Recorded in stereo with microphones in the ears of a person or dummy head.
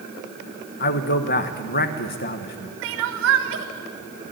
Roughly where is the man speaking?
Left.